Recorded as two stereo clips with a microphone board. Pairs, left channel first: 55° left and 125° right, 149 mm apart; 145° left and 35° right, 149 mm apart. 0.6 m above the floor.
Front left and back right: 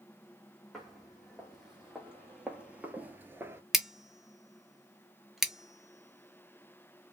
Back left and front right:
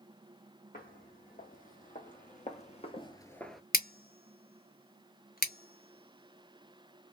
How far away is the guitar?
I don't hear a guitar.